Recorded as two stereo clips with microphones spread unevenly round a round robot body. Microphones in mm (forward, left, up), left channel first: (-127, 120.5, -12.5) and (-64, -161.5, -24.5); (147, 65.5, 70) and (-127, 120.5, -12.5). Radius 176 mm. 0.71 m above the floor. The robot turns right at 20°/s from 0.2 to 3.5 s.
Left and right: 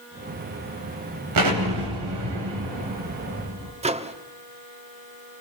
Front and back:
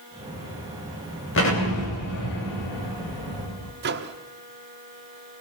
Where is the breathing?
I don't hear breathing.